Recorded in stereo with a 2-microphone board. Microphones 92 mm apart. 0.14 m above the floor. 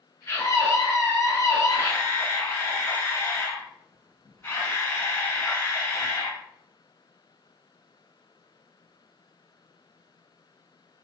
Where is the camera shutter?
25° left (ahead or behind), 1.2 m.